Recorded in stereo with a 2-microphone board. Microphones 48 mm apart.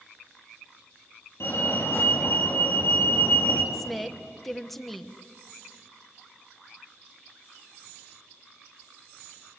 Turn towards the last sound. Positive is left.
turn(degrees=0)  # may be behind; listen again after turning